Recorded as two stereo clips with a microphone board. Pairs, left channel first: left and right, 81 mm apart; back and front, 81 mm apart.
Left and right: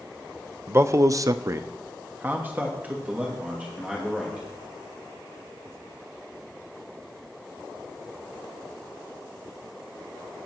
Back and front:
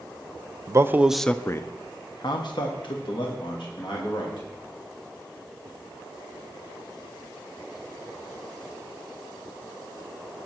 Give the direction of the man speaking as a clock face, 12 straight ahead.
1 o'clock.